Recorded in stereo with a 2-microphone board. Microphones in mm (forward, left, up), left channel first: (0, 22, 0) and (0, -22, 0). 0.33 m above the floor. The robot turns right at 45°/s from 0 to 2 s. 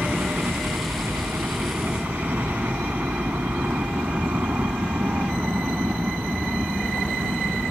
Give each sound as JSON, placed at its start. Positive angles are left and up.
{"t": 0.0, "sound": "a helicopter", "side_deg": -40}